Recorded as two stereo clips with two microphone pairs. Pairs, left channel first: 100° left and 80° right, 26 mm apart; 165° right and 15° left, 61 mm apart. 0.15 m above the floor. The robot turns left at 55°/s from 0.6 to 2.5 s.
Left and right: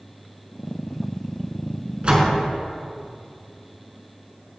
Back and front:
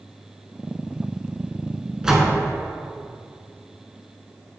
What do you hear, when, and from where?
2.0 s a door slam: 60° right, 1.6 m; by 2.4 s 80° right, 1.6 m